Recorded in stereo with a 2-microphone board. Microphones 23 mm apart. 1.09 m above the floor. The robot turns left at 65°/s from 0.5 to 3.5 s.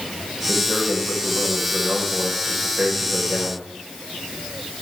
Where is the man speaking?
15° right, 5 m; by 3.7 s 150° left, 5 m.